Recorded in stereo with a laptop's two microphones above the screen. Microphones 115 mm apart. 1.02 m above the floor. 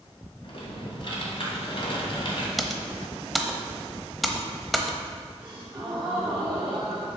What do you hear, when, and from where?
0.4 s typing on a keyboard: 50° left (ahead or behind), 2 m
2.6 s typing on a keyboard: centre (ahead or behind), 0.9 m
5.4 s a gasp: 50° right (ahead or behind), 1.9 m